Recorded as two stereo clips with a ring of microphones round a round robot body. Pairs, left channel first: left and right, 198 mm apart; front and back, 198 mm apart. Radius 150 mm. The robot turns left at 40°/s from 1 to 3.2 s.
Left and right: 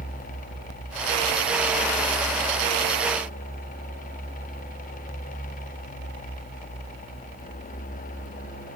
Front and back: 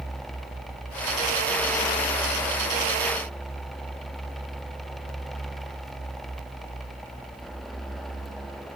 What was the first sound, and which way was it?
Only background noise.